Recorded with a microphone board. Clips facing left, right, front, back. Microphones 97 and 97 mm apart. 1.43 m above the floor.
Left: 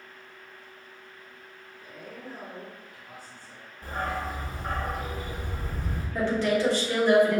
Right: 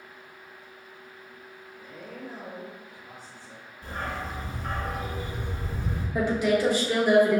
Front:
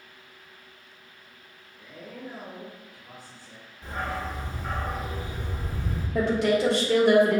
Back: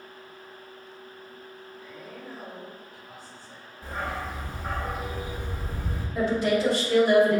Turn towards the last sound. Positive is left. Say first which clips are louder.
# right 1 dB, front 1 dB
turn(degrees=-10)